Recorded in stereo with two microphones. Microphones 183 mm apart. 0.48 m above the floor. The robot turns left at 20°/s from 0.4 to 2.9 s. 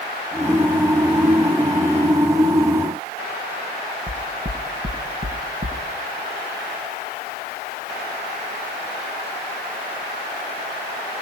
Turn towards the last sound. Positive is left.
turn(degrees=-75)  # may be behind; listen again after turning